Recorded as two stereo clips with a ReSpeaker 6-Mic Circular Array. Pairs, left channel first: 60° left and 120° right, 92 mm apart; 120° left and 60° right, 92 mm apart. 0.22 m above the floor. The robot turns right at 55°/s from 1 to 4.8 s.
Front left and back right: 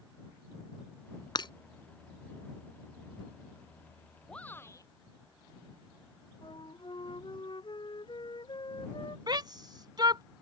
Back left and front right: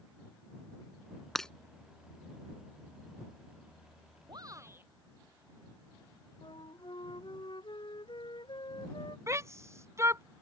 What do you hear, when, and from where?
1.4 s breaking glass: 30° left; by 1.5 s 40° left
4.3 s a shout: 20° right; by 4.9 s 5° left
6.4 s a flute: 90° left
9.3 s a shout: 105° right